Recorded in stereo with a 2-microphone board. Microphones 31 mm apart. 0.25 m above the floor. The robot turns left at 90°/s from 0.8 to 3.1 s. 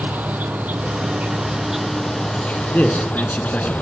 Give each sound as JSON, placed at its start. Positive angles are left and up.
{"t": 0.0, "sound": "an insect", "azimuth_deg": -85, "distance_m": 1.8}
{"t": 2.7, "sound": "a man speaking", "azimuth_deg": 100, "distance_m": 3.0}